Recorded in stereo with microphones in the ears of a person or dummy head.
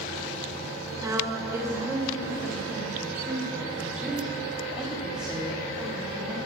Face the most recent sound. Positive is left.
turn(degrees=0)  # may be behind; listen again after turning